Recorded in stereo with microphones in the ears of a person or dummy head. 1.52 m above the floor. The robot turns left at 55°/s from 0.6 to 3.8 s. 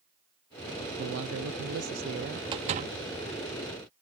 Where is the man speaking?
60° right; by 2.4 s 135° right.